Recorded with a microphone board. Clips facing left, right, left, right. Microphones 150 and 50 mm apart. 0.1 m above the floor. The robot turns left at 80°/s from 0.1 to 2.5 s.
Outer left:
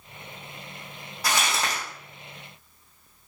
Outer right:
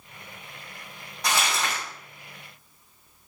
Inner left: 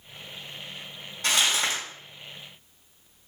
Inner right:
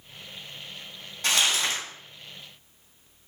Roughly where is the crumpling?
Behind.